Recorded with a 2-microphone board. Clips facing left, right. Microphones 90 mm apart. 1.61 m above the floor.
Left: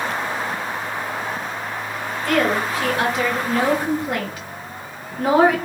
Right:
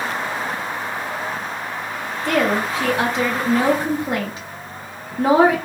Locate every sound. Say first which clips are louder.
2.2 s a woman speaking: even; 25° right (ahead or behind), 1.3 m